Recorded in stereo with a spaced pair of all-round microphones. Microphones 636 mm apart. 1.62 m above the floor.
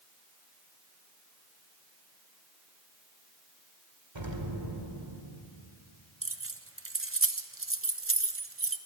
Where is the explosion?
40° right (ahead or behind), 2 m.